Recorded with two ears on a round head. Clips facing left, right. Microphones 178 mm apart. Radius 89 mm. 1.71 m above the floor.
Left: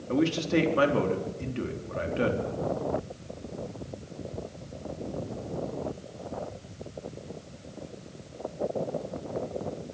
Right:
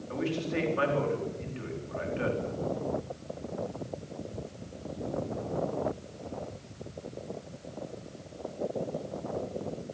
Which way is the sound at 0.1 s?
55° left (ahead or behind).